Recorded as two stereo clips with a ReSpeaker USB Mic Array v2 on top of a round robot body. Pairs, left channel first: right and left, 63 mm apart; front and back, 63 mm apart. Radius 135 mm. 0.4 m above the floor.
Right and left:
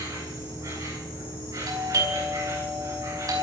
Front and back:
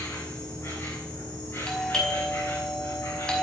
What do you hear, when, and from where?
0.0 s an insect: 50° left, 8.5 m
1.7 s a doorbell: 75° left, 5 m